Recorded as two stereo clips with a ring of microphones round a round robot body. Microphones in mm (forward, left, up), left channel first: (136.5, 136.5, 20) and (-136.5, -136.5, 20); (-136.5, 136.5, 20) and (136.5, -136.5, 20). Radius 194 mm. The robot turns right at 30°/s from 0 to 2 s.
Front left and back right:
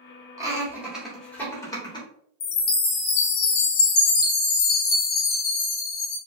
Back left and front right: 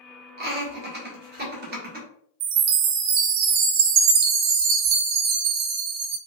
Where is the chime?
15° right, 0.5 m.